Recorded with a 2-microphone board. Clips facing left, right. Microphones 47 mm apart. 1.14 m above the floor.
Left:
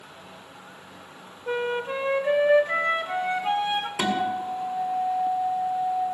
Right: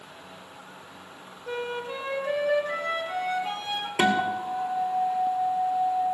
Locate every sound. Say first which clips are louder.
1.5 s a flute: left 5 dB; 30° left (ahead or behind), 1.2 m
4.0 s a guitar: right 5 dB; 40° right (ahead or behind), 2 m